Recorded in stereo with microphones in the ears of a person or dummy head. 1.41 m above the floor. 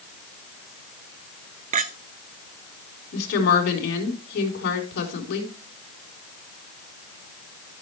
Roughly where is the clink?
Right.